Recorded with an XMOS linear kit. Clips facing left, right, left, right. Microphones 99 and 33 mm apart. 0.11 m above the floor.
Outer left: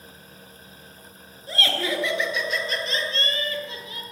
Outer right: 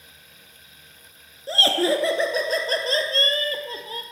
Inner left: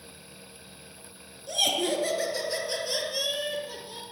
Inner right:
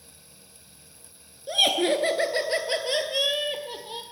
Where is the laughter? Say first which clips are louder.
Outer right 6 dB, inner right 4 dB; 30° right (ahead or behind), 1.2 m; by 4.0 s 40° right (ahead or behind), 2.5 m.